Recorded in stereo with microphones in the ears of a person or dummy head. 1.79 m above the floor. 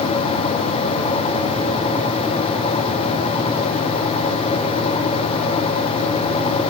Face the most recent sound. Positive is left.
No sound to turn to.